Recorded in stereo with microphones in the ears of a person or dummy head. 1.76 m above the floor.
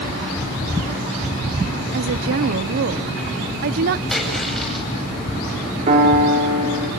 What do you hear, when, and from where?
1.9 s a woman speaking: 50° right (ahead or behind), 0.9 m
4.1 s a splash: centre (ahead or behind), 10 m
5.9 s a piano: 45° right (ahead or behind), 5.5 m